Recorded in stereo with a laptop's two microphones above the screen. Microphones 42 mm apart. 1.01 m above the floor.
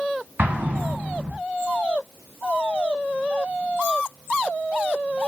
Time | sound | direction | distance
0.4 | an explosion | 45° right (ahead or behind) | 1.3 m